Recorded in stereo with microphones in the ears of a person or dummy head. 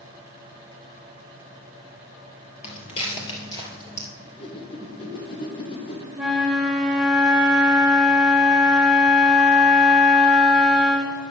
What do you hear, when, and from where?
2.6 s footsteps: 35° left (ahead or behind), 2 m; by 4.1 s 20° left (ahead or behind), 2.5 m
4.2 s a whoosh: 35° left (ahead or behind), 1.3 m
6.1 s a flute: centre (ahead or behind), 3 m